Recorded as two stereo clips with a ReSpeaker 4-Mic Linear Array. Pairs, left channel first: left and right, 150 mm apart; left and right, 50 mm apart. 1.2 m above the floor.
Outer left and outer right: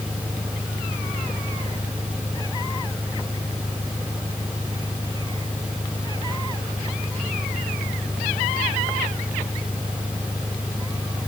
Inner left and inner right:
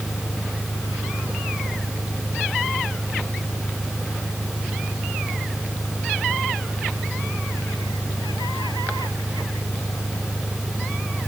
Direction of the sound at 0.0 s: 35° left (ahead or behind).